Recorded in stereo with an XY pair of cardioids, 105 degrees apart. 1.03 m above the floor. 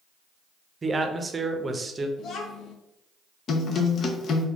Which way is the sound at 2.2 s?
65° left.